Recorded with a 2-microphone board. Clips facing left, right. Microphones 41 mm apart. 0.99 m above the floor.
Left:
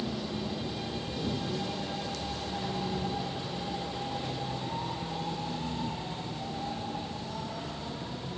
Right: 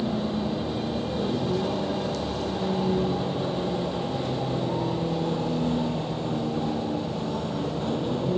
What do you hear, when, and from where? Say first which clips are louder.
0.0 s a vehicle: right 8 dB; 35° right (ahead or behind); by 8.4 s 65° right (ahead or behind)